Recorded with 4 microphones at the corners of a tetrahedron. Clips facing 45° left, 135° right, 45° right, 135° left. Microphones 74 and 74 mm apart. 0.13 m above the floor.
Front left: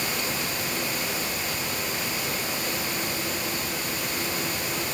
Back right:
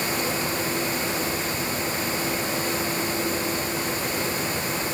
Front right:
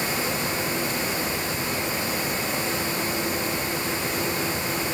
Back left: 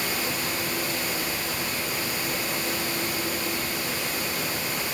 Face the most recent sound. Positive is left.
No sound to turn to.